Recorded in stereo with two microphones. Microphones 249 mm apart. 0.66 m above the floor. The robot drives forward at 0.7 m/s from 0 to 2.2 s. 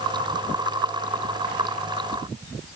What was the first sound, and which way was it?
Only background noise.